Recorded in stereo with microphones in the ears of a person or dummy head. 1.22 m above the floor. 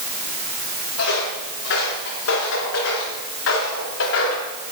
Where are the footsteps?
70° left (ahead or behind), 8 m; by 4.5 s 75° left (ahead or behind), 5 m.